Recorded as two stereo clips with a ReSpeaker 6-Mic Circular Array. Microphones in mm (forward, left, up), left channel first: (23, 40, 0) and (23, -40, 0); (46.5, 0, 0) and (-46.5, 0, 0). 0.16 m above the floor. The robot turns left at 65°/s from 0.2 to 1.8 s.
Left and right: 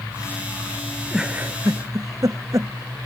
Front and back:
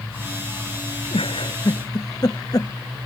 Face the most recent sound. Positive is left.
turn(degrees=-50)